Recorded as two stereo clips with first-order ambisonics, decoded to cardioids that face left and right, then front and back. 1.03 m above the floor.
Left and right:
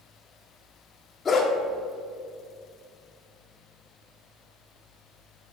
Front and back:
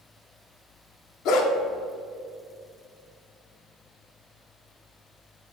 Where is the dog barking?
20° left, 0.8 m.